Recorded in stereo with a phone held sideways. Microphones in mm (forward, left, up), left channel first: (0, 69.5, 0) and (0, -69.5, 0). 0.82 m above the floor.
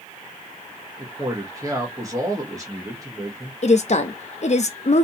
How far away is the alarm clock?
I don't hear an alarm clock.